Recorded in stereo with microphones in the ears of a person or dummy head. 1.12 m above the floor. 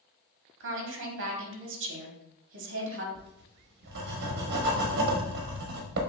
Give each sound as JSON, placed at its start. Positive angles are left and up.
{"t": 0.6, "sound": "a woman speaking", "side_deg": -60, "distance_m": 1.2}
{"t": 3.1, "sound": "writing", "side_deg": -55, "distance_m": 0.9}